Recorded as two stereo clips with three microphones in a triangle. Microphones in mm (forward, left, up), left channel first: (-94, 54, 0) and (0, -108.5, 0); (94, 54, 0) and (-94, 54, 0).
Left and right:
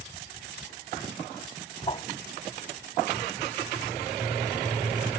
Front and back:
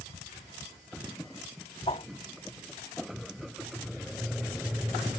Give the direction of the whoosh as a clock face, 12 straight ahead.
10 o'clock.